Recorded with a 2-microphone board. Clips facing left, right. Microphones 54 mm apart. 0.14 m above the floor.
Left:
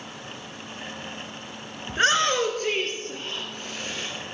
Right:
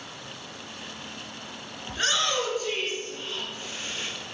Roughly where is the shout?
Left.